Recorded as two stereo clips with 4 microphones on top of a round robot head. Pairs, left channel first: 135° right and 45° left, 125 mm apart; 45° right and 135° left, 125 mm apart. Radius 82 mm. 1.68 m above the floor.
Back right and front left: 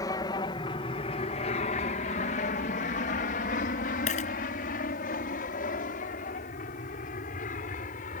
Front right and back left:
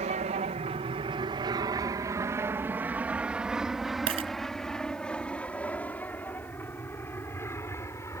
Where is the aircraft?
165° left; by 8.2 s 115° right.